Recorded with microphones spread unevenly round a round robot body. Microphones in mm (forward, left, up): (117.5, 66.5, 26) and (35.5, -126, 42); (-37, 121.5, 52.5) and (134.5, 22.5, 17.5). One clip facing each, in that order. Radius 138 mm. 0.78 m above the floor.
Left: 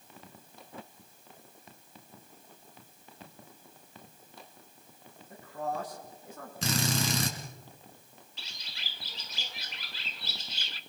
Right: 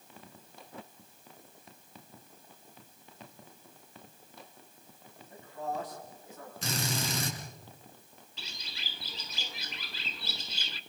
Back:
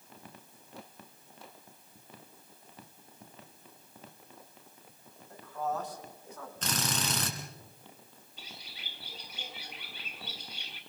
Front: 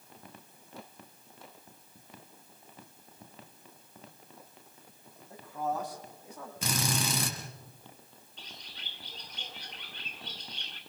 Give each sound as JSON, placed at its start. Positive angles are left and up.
{"t": 5.3, "sound": "a man speaking", "azimuth_deg": 50, "distance_m": 7.5}
{"t": 6.6, "sound": "a drill", "azimuth_deg": 50, "distance_m": 4.5}
{"t": 8.4, "sound": "a bird", "azimuth_deg": -125, "distance_m": 0.8}